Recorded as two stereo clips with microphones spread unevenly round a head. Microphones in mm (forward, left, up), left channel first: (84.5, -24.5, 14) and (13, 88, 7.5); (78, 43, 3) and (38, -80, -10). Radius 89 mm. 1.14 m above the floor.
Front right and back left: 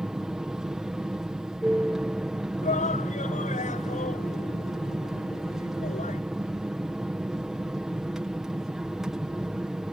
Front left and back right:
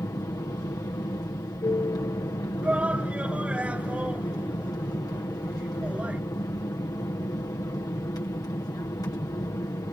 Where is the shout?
25° right.